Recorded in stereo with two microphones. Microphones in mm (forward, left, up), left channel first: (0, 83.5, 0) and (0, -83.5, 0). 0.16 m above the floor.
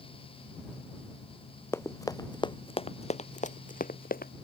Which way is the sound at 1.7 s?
15° left (ahead or behind).